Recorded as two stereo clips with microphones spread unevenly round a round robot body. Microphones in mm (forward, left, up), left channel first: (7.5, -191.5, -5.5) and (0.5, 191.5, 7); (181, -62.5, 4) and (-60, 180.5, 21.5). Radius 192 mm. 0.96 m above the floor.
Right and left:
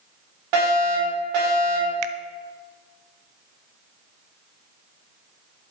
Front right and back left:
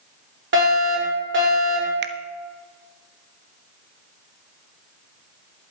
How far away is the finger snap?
About 0.9 m.